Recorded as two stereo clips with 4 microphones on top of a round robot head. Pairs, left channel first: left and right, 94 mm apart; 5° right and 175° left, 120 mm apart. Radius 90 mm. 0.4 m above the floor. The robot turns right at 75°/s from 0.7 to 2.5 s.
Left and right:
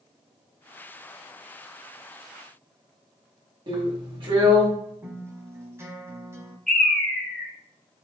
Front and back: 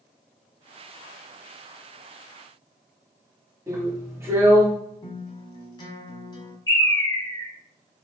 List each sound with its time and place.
3.7 s a drill: 120° right, 2 m
5.0 s a guitar: 40° right, 1.3 m
6.7 s a bird: 5° left, 1.4 m